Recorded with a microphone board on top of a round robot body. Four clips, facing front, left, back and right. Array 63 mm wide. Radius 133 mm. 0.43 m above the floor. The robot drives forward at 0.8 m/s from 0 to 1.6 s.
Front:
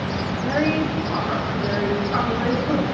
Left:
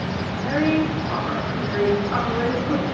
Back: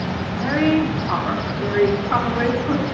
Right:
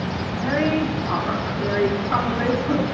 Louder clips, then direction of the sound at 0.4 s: Left 1 dB, back 4 dB; 155° right.